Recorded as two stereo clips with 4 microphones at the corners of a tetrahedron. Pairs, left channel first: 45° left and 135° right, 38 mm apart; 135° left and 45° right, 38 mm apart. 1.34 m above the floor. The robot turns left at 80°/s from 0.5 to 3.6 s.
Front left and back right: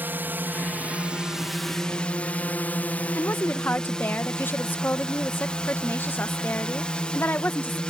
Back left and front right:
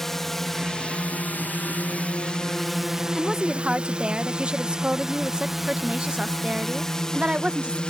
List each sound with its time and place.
0.0 s a drone: 145° right; by 7.9 s 90° left
3.1 s a woman speaking: 55° left; by 7.8 s 15° left